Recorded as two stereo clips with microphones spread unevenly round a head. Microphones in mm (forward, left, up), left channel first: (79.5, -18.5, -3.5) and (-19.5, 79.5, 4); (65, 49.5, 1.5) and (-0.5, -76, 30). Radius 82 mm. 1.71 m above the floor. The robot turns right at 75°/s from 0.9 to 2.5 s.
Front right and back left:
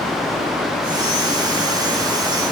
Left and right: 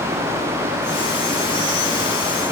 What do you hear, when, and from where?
Only background noise.